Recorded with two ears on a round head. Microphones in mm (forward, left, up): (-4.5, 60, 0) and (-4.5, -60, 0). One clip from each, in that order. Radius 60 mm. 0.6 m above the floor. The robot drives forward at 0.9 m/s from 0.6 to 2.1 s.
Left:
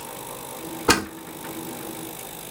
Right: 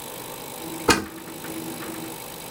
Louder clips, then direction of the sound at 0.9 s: Even; 10° left (ahead or behind).